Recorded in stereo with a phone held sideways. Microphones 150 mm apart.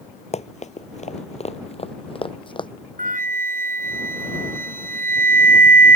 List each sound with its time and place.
0.3 s running footsteps: 50° left (ahead or behind); by 2.7 s 35° left (ahead or behind)
3.0 s a flute: 60° right (ahead or behind)